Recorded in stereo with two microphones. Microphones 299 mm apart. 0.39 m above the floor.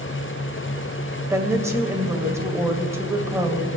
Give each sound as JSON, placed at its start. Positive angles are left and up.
{"t": 1.3, "sound": "a woman speaking", "side_deg": -10, "distance_m": 1.8}